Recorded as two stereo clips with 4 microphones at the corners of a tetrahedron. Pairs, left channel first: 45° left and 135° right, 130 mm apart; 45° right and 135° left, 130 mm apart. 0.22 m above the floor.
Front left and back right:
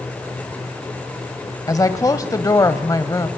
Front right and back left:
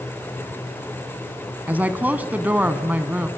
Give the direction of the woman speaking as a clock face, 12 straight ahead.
10 o'clock.